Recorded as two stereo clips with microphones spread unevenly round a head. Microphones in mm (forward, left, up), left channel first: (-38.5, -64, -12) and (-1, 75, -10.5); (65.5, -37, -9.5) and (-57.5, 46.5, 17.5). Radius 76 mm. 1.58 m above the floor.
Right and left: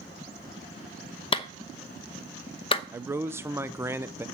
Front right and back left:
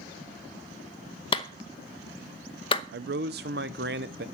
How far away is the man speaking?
About 0.8 m.